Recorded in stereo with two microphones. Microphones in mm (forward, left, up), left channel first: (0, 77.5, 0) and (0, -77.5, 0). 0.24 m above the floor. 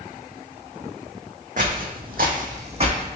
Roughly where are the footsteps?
Right.